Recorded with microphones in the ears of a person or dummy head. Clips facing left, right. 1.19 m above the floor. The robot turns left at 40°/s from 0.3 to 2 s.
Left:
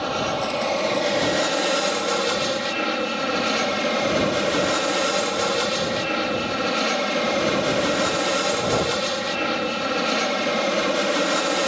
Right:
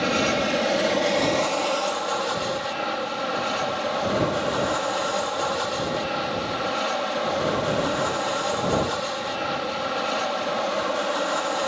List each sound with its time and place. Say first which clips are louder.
0.0 s an aircraft: right 2 dB; 145° right; by 11.7 s 145° left